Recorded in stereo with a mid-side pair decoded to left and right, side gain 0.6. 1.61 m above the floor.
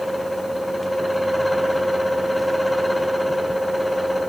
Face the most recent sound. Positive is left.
turn(degrees=5)